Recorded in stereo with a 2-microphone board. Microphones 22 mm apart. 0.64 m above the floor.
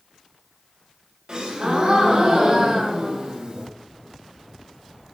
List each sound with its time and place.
1.3 s a gasp: 40° right (ahead or behind), 1.9 m